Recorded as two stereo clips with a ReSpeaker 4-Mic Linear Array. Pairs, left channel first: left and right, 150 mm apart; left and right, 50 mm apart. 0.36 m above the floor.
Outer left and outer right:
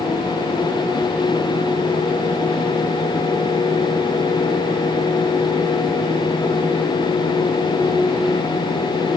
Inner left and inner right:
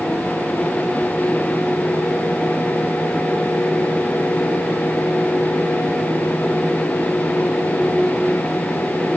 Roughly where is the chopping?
No chopping in this recording.